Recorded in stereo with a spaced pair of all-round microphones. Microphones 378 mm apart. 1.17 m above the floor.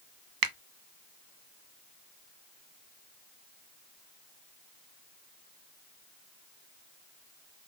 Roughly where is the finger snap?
Right.